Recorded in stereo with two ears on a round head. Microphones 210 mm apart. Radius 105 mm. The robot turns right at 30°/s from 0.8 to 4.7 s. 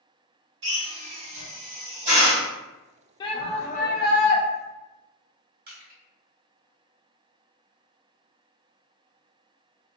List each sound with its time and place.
0.6 s a drill: 55° right (ahead or behind), 2.0 m; by 2.5 s 20° right (ahead or behind), 2.0 m
3.2 s a shout: 20° left, 0.7 m; by 4.4 s 55° left, 0.7 m
5.7 s crushing: 40° right (ahead or behind), 1.6 m